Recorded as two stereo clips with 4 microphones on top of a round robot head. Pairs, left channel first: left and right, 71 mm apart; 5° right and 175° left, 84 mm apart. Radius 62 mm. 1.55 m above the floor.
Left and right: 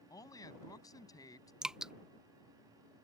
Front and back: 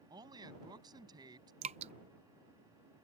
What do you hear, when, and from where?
0.1 s a woman speaking: 130° left
1.6 s dripping: 170° right